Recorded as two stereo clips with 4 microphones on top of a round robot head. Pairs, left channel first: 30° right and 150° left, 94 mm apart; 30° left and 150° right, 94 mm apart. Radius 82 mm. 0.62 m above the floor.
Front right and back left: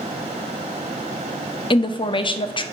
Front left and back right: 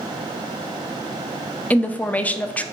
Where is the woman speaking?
40° right, 0.8 m.